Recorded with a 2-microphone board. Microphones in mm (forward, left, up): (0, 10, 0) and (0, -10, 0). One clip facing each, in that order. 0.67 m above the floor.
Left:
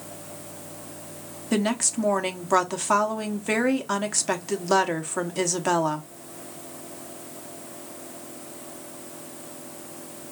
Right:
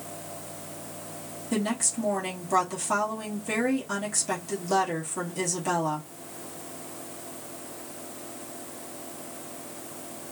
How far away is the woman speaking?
About 1.1 m.